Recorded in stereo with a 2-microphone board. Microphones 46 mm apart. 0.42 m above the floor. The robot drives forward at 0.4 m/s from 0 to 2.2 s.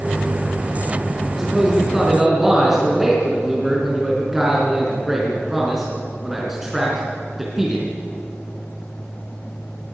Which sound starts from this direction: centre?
A man speaking, at 1.3 s.